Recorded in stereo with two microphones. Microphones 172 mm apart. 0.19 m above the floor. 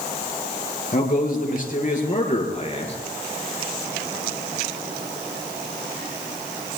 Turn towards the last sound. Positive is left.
turn(degrees=35)  # may be behind; listen again after turning